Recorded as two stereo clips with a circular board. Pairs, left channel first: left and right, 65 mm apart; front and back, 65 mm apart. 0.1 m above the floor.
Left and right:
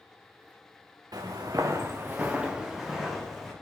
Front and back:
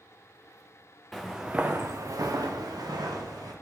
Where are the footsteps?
85° right, 0.5 m; by 3.5 s 175° left, 1.1 m.